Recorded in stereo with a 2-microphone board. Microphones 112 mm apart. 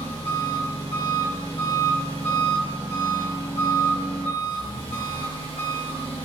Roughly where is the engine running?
Left.